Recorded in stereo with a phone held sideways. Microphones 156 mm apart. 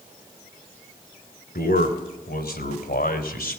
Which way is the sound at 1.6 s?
80° left.